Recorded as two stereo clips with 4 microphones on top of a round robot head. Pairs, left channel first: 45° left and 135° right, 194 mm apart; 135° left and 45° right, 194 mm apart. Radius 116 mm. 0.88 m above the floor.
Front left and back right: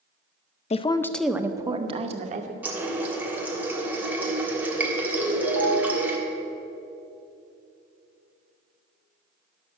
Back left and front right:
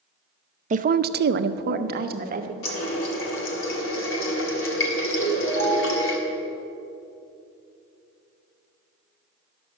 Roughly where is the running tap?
Behind left.